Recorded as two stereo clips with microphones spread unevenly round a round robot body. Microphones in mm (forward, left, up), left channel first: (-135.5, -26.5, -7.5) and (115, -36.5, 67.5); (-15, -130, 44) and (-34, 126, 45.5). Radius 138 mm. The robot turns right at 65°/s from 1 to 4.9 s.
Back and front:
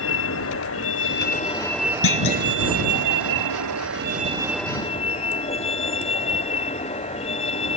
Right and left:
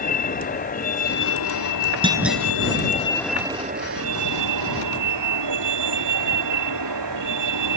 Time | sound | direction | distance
0.0 | a vehicle | 145° right | ?
2.0 | a clunk | 165° left | ?